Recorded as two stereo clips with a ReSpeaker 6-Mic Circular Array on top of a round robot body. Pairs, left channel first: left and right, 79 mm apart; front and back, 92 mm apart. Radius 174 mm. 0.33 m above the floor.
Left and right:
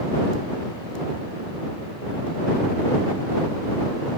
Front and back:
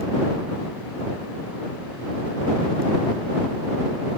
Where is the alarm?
No alarm in this recording.